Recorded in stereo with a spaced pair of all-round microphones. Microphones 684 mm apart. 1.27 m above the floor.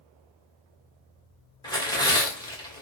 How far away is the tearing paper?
About 1.6 m.